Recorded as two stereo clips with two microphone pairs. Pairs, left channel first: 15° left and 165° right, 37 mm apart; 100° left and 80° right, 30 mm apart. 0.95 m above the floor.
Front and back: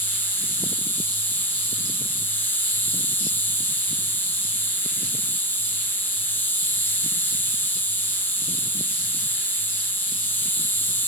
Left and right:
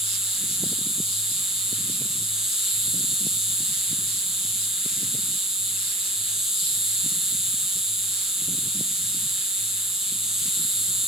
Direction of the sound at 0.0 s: Straight ahead.